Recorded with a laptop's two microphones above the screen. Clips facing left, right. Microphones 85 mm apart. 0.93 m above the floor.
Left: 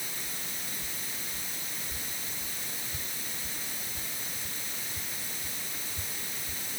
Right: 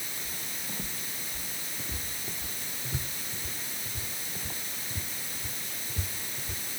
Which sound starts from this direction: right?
Footsteps, at 0.2 s.